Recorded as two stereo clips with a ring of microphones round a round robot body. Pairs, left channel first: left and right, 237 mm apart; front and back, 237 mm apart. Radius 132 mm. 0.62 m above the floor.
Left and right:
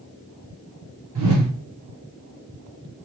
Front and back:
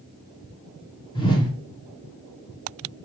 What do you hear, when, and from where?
1.1 s a whoosh: 70° right, 1.9 m